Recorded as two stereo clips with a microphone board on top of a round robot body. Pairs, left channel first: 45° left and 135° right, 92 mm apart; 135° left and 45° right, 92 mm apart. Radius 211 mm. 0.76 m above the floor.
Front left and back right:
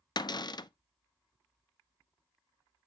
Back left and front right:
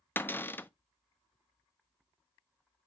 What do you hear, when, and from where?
0.2 s a cupboard door: 70° left, 0.5 m